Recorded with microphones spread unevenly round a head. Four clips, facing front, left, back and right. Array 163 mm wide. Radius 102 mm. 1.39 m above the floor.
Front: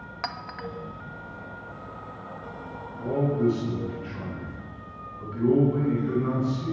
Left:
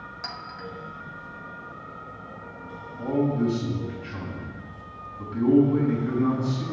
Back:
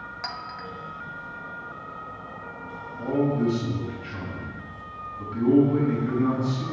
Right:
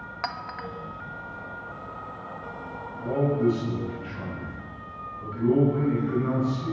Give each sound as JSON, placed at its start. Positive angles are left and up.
{"t": 0.2, "sound": "a clink", "azimuth_deg": -95, "distance_m": 1.1}
{"t": 3.0, "sound": "a man speaking", "azimuth_deg": 95, "distance_m": 8.0}